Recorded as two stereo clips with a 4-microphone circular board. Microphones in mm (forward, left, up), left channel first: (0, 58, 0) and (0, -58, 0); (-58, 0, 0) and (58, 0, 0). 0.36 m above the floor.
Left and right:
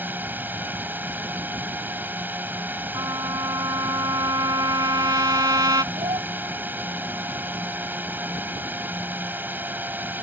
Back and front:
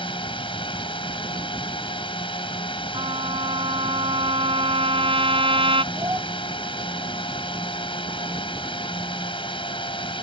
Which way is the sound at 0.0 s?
160° right.